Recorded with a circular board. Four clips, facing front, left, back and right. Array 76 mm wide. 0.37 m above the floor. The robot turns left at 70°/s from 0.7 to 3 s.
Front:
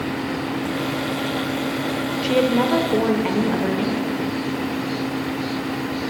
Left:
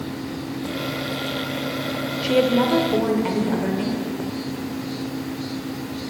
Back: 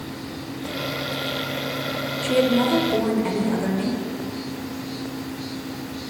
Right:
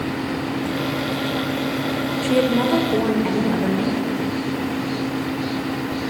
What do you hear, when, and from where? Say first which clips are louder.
2.2 s a woman speaking: left 1 dB, front 1 dB; 45° left, 0.9 m; by 4.0 s 10° right, 0.9 m